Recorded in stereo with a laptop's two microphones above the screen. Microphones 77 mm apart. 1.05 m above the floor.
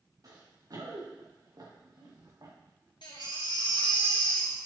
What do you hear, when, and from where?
0.2 s running footsteps: 55° right (ahead or behind), 5 m
3.0 s a baby crying: 75° left (ahead or behind), 1.7 m